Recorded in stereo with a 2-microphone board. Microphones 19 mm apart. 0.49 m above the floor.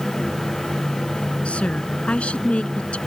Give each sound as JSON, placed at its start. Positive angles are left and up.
{"t": 1.4, "sound": "a woman speaking", "side_deg": 75}